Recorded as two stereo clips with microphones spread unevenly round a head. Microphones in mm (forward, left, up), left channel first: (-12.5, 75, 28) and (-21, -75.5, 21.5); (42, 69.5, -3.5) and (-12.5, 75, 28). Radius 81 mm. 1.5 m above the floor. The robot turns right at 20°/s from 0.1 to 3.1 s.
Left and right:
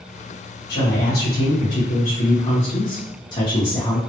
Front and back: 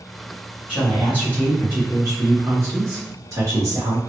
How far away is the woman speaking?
About 1.6 m.